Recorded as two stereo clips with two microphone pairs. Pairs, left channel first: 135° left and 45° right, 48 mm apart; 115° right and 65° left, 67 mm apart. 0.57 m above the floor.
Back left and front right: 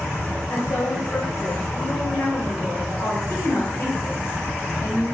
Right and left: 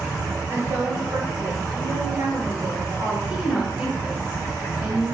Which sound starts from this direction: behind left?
A woman speaking, at 3.3 s.